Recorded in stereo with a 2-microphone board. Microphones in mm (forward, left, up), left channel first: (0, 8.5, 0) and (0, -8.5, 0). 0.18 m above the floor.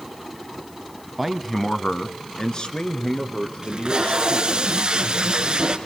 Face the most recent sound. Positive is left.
turn(degrees=-50)  # may be behind; listen again after turning